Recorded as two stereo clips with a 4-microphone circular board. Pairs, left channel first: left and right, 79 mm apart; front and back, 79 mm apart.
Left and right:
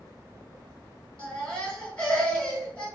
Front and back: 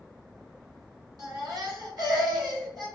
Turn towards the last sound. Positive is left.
turn(degrees=165)